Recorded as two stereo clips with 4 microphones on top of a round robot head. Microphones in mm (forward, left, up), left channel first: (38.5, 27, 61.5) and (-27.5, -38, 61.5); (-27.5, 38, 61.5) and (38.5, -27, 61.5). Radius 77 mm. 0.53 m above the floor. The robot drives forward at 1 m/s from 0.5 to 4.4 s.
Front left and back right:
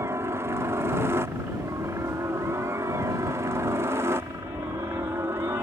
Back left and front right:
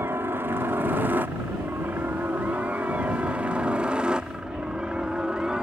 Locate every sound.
0.0 s a helicopter: 95° right; by 5.6 s 120° right